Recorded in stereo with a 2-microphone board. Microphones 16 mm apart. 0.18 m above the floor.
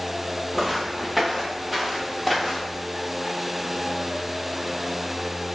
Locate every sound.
0.6 s footsteps: 10° right (ahead or behind), 0.5 m; by 2.9 s centre (ahead or behind), 1.7 m